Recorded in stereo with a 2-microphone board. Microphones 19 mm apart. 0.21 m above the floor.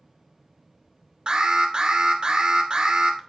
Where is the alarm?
65° right (ahead or behind), 2 m.